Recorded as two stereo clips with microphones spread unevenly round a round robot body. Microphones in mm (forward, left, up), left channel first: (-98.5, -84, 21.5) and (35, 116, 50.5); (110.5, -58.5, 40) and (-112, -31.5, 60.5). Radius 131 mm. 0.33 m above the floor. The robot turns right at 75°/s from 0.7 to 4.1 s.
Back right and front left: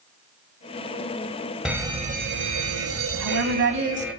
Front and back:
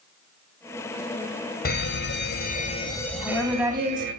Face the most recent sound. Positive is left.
turn(degrees=125)